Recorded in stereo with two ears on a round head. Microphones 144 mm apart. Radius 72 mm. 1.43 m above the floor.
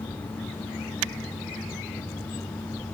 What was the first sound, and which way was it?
Only background noise.